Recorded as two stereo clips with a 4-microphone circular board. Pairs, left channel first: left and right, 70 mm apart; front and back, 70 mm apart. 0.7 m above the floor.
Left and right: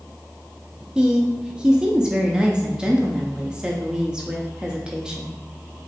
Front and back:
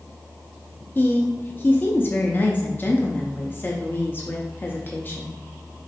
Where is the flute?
No flute in this recording.